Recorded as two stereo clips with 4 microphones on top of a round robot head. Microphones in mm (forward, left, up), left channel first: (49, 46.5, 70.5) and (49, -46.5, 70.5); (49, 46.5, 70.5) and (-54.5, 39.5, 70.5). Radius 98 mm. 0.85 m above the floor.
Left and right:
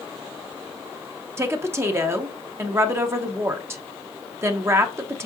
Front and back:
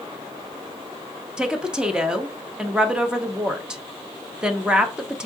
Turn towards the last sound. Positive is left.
turn(degrees=-105)